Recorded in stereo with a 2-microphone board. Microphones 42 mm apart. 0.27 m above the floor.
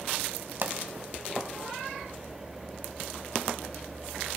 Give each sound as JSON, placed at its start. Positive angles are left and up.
{"t": 0.6, "sound": "a pop", "side_deg": -50, "distance_m": 1.1}